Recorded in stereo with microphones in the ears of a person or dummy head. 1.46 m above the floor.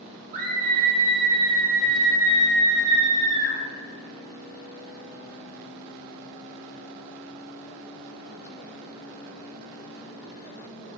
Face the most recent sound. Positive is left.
turn(degrees=-55)  # may be behind; listen again after turning